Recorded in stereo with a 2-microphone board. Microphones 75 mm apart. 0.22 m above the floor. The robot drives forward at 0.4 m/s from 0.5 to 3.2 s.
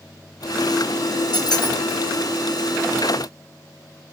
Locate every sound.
1.3 s a squeak: 75° left (ahead or behind), 0.8 m; by 1.8 s 70° left (ahead or behind), 0.8 m